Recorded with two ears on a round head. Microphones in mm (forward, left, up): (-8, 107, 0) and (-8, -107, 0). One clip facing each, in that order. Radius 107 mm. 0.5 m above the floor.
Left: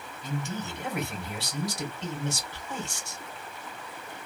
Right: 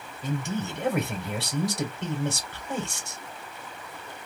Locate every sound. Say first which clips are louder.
0.2 s a man speaking: right 4 dB; 45° right (ahead or behind), 2.5 m